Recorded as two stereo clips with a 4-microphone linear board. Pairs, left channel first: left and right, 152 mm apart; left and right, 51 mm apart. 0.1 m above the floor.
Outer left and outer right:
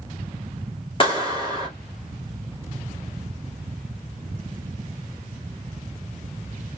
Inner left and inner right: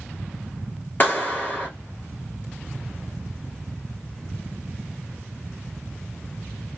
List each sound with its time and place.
1.0 s a clap: 35° left (ahead or behind), 1.9 m